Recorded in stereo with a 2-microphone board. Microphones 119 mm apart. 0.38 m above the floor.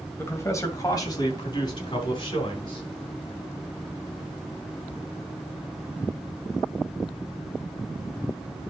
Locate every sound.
0.2 s a man speaking: 20° left (ahead or behind), 1.8 m; by 2.8 s 50° left (ahead or behind), 4 m